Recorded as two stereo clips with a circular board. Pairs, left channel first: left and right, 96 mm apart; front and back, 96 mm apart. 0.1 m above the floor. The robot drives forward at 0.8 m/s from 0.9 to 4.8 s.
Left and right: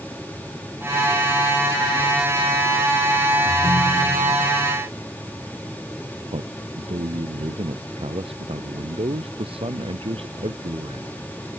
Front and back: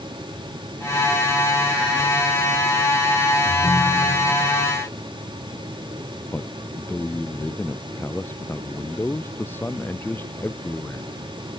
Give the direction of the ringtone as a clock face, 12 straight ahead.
2 o'clock.